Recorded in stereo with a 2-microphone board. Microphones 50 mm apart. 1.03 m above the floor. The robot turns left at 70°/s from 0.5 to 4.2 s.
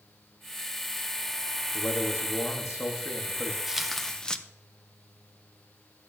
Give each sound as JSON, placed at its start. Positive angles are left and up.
{"t": 1.7, "sound": "a man speaking", "azimuth_deg": 155, "distance_m": 1.1}
{"t": 3.7, "sound": "tearing paper", "azimuth_deg": -165, "distance_m": 0.6}